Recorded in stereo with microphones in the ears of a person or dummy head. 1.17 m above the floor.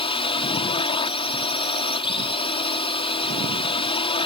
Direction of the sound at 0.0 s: 25° left (ahead or behind).